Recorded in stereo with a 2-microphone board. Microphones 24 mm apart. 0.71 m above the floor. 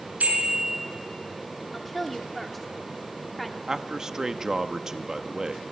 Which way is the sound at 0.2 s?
75° right (ahead or behind).